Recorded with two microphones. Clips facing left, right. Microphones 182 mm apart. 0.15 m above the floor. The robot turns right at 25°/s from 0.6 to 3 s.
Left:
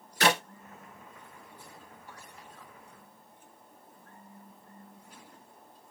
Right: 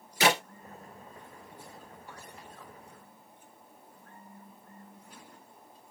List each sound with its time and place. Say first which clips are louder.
0.2 s a clap: even; 5° right (ahead or behind), 1.8 m